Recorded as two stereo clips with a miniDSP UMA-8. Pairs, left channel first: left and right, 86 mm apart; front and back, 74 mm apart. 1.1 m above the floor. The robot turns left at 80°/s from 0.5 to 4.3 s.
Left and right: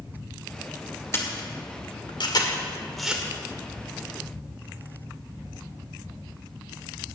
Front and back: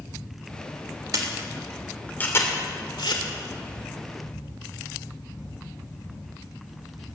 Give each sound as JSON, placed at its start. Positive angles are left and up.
{"t": 1.1, "sound": "a camera shutter", "azimuth_deg": 150, "distance_m": 2.0}